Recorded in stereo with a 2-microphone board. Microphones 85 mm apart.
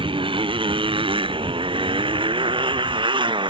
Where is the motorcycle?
80° right; by 3.5 s 70° right (ahead or behind).